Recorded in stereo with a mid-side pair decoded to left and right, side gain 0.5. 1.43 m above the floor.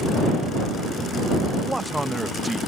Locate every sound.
1.6 s a man speaking: 10° right